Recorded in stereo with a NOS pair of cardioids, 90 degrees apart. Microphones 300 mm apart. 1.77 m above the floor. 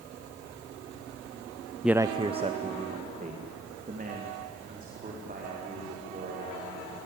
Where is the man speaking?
Straight ahead, 0.6 m; by 7.1 s 30° right, 8 m.